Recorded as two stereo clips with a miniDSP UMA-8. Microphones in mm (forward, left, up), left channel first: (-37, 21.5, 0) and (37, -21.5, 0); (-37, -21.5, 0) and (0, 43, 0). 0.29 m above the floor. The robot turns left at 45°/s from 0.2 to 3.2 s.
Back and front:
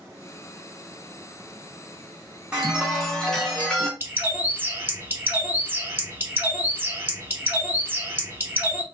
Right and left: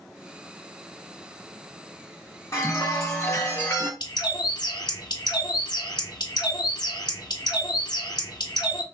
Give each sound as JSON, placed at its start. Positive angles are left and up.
{"t": 2.5, "sound": "a chime", "azimuth_deg": -105, "distance_m": 1.1}
{"t": 4.0, "sound": "a bird", "azimuth_deg": -95, "distance_m": 0.8}